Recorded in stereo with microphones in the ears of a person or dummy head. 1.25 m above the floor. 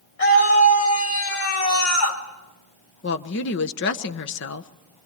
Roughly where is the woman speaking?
Left.